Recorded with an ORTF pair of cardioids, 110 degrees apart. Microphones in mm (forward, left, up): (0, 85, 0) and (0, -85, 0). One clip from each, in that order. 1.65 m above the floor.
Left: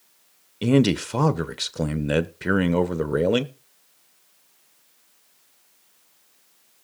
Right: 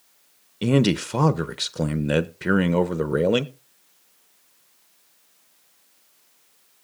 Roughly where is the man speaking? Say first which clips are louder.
Left 1 dB; ahead.